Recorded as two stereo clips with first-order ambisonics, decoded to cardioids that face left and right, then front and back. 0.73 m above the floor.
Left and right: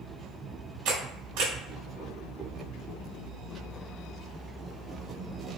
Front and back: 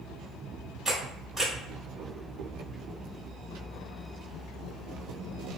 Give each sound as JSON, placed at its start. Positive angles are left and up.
{"t": 0.8, "sound": "a camera shutter", "azimuth_deg": -95, "distance_m": 1.7}